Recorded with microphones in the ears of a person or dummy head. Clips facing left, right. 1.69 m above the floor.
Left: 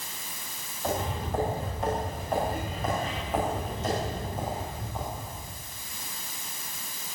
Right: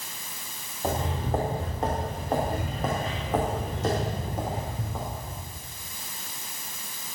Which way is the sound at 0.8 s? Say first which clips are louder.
Right 2 dB; 30° right (ahead or behind).